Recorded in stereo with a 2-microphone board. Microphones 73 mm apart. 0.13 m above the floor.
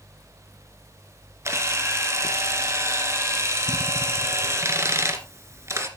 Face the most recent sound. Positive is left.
turn(degrees=-40)  # may be behind; listen again after turning